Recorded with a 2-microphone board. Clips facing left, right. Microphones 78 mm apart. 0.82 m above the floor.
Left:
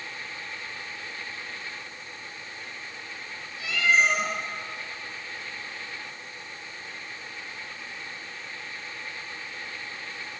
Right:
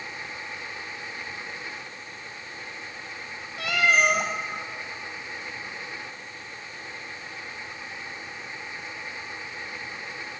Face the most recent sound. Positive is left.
turn(degrees=-70)  # may be behind; listen again after turning